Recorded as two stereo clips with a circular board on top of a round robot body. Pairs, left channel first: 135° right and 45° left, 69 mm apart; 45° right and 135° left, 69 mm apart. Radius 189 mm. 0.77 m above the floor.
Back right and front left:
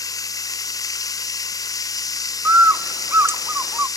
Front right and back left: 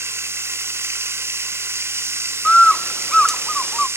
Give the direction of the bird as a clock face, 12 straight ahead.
11 o'clock.